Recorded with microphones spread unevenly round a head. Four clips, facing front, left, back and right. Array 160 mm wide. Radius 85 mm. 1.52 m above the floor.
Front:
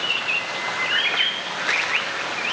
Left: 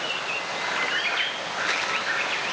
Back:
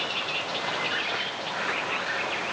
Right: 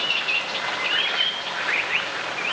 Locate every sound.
Only background noise.